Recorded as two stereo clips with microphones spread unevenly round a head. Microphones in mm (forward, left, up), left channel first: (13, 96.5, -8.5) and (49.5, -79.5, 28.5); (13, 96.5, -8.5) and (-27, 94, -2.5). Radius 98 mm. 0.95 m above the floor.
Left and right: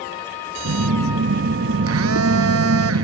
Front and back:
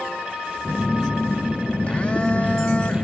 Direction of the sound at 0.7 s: 80° right.